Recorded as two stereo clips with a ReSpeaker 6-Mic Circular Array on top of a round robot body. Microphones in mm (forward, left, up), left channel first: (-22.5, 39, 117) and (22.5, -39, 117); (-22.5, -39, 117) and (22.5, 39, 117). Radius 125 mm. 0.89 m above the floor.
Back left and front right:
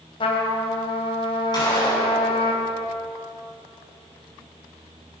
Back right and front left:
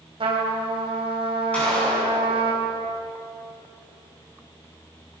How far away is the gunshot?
About 9.5 m.